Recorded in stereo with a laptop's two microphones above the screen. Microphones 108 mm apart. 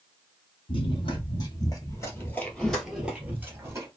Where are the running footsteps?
50° left (ahead or behind), 1.5 m; by 3.9 s 30° right (ahead or behind), 1.1 m.